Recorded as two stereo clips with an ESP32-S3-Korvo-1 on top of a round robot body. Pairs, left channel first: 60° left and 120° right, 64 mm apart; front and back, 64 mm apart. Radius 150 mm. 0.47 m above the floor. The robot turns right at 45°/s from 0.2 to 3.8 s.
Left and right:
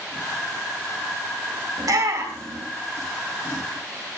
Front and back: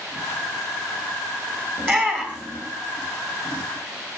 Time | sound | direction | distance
1.8 | a shout | 125° right | 2 m